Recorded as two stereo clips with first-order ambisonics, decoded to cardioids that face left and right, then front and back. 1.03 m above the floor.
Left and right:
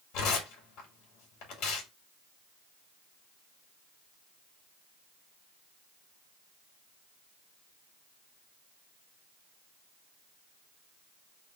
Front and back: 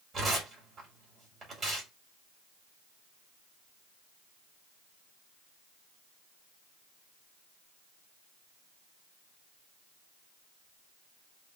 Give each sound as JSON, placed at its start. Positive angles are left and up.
{"t": 0.1, "sound": "tearing paper", "azimuth_deg": 115, "distance_m": 2.0}